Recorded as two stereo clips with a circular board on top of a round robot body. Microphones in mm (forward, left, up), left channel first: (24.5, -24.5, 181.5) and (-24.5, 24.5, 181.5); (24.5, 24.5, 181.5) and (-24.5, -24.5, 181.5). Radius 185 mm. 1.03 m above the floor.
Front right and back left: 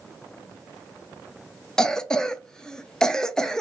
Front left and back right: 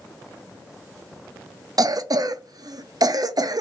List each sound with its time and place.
1.8 s a cough: 125° right, 0.5 m